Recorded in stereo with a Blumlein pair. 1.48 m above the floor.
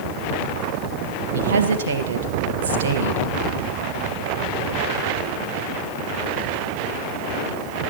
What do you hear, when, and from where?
1.3 s a woman speaking: 65° right, 1.6 m